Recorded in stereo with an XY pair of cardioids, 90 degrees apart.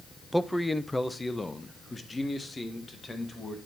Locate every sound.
0.3 s a man speaking: 5° right, 0.6 m; by 3.6 s 30° left, 2.5 m